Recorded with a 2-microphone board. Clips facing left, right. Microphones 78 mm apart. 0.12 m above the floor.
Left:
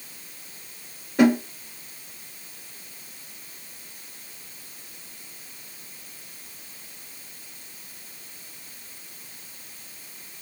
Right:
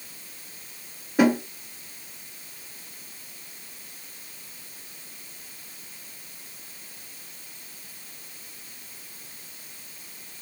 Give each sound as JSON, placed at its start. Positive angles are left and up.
{"t": 1.2, "sound": "a snare drum", "side_deg": -10, "distance_m": 1.5}